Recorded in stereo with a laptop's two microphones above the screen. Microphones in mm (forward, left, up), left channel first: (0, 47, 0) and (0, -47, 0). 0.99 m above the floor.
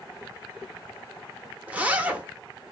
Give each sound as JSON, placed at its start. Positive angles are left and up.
{"t": 1.7, "sound": "a zipper", "side_deg": -15, "distance_m": 0.6}